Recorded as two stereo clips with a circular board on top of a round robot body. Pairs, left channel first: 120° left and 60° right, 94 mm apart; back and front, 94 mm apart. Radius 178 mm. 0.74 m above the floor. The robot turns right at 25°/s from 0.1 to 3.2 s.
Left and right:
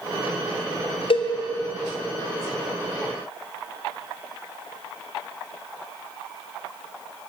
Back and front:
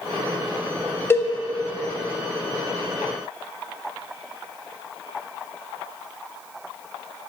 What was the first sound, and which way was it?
A cowbell, 115° left.